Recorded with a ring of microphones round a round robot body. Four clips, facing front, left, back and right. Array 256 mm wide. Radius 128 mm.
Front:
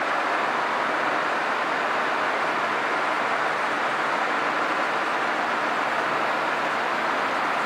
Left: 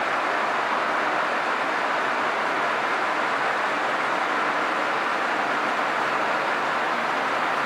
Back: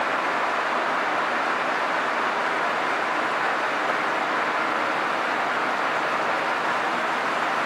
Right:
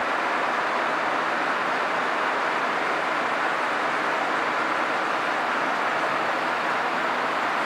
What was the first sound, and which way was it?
Only background noise.